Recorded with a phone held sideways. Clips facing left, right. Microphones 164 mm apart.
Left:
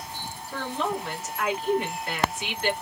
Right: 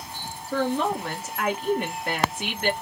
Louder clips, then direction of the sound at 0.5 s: Right 5 dB; 55° right (ahead or behind).